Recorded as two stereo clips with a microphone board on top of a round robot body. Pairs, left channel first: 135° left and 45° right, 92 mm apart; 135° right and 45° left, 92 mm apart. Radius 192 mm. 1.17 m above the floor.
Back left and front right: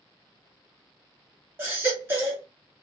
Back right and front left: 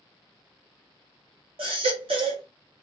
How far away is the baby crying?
About 0.6 m.